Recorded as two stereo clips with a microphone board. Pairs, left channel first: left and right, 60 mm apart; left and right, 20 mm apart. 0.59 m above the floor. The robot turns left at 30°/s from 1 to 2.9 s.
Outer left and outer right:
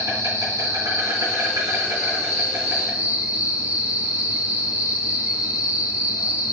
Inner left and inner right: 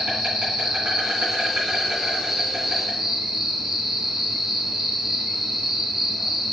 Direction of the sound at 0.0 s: 85° right.